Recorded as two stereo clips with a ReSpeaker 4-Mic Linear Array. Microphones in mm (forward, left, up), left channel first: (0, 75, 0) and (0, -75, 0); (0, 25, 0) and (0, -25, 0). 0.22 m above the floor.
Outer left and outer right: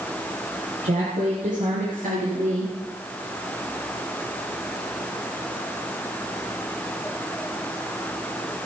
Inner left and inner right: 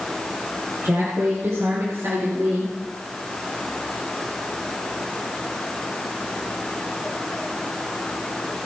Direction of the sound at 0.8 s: 65° right (ahead or behind).